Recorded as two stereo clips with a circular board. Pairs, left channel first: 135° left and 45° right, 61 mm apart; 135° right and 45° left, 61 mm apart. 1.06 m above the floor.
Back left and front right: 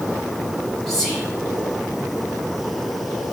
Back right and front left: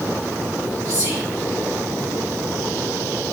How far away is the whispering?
About 5 m.